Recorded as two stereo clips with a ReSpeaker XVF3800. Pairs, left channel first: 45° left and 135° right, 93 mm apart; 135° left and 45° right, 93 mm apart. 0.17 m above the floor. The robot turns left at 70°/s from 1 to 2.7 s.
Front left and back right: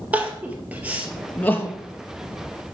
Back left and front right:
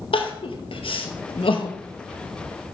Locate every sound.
0.1 s crying: 150° left, 0.9 m; by 2.8 s 30° left, 0.9 m